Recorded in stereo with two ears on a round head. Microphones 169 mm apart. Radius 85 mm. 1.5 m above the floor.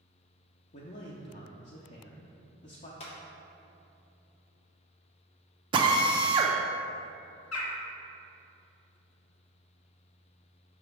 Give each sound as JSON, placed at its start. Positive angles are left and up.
{"t": 0.7, "sound": "a man speaking", "side_deg": 40, "distance_m": 0.6}
{"t": 3.0, "sound": "a clap", "side_deg": 35, "distance_m": 1.2}
{"t": 5.7, "sound": "a drill", "side_deg": -25, "distance_m": 0.5}
{"t": 7.5, "sound": "a bird", "side_deg": 80, "distance_m": 0.8}